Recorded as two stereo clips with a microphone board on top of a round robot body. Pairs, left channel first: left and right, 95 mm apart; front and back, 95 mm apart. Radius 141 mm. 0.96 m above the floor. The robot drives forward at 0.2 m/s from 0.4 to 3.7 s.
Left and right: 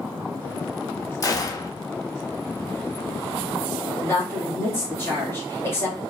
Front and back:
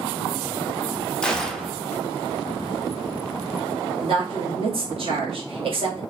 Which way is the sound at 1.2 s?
75° left.